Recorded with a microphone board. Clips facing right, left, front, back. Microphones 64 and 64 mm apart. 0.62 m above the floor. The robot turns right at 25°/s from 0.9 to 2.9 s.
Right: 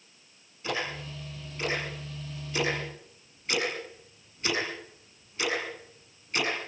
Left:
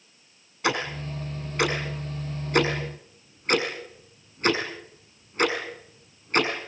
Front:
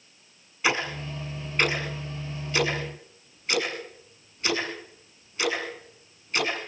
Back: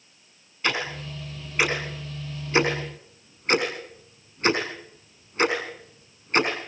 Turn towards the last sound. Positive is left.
turn(degrees=130)